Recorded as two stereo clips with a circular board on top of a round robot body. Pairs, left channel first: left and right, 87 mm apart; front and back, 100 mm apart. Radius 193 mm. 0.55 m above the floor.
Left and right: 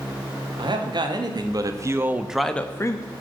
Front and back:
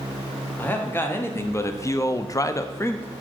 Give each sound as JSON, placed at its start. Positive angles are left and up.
{"t": 0.6, "sound": "a man speaking", "azimuth_deg": -70, "distance_m": 1.5}